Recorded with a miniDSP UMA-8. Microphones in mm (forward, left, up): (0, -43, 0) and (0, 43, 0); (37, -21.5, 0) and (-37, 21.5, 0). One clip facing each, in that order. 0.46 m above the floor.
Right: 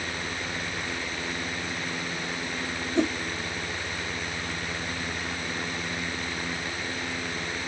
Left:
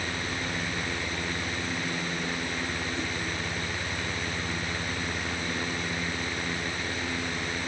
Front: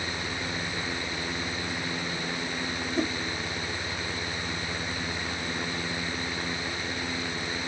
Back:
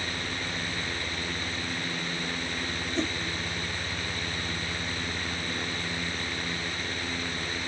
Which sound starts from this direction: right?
A whoosh, at 3.0 s.